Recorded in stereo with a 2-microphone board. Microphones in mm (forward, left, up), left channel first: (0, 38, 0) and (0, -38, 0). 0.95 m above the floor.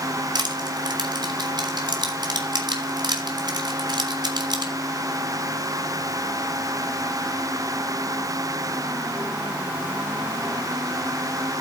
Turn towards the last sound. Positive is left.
turn(degrees=-75)  # may be behind; listen again after turning